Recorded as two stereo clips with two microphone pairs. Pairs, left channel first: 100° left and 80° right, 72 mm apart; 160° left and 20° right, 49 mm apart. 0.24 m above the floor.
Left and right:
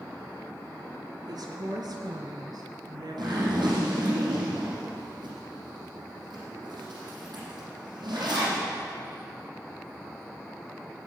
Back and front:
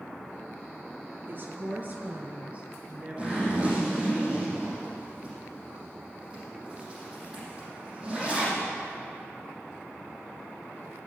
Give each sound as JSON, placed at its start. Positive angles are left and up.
{"t": 1.3, "sound": "a woman speaking", "azimuth_deg": -65, "distance_m": 3.5}
{"t": 3.2, "sound": "a zipper", "azimuth_deg": -90, "distance_m": 7.0}